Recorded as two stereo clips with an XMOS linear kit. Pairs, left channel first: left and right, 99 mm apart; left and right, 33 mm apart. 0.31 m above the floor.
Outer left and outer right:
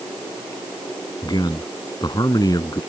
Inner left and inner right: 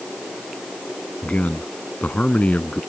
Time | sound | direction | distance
1.2 | a man speaking | 40° left (ahead or behind) | ?